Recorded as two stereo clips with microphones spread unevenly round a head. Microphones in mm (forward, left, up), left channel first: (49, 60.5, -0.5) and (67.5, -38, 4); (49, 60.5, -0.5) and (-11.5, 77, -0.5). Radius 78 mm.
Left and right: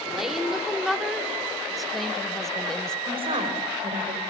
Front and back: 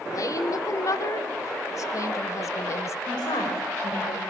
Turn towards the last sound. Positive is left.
turn(degrees=-50)